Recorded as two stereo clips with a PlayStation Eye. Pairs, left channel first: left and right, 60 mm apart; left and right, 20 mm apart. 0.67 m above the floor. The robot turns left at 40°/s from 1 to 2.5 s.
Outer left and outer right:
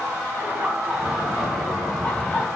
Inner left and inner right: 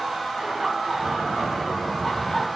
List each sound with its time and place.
0.4 s laughter: 155° right, 5 m; by 2.5 s 145° left, 5 m